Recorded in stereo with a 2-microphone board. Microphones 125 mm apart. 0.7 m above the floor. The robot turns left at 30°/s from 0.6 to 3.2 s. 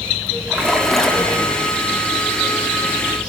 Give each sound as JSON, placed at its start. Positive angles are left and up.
{"t": 0.5, "sound": "a splash", "side_deg": -10, "distance_m": 0.8}